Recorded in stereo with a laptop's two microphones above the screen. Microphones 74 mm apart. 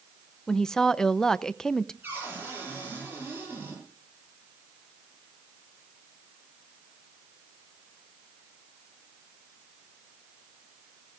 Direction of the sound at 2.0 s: 25° right (ahead or behind).